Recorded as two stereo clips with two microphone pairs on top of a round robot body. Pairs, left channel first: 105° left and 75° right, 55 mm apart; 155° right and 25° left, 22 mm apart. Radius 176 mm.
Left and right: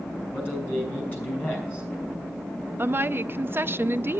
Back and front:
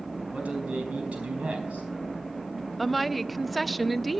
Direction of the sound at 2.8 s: 65° right.